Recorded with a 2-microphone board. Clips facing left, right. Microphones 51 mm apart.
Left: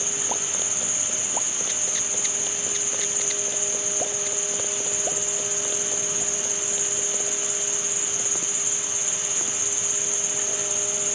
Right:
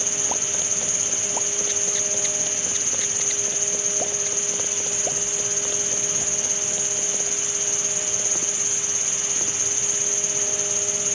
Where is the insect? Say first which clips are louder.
Right 1 dB; 10° left (ahead or behind), 1.1 m.